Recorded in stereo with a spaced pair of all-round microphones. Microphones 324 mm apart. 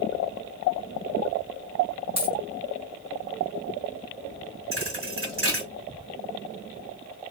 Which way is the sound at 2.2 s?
20° right (ahead or behind).